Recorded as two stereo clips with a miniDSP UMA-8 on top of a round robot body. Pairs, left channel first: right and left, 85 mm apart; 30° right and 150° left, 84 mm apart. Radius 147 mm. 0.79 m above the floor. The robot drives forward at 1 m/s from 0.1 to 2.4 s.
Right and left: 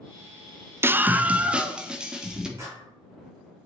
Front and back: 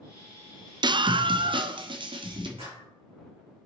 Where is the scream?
150° left, 0.6 m; by 2.5 s 175° left, 2.0 m.